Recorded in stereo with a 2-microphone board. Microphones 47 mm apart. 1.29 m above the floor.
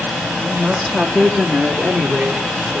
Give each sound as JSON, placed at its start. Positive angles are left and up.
{"t": 0.4, "sound": "a woman speaking", "side_deg": 5, "distance_m": 2.5}